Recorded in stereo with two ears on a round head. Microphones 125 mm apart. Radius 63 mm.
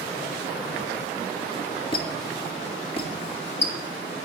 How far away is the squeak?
About 1.3 m.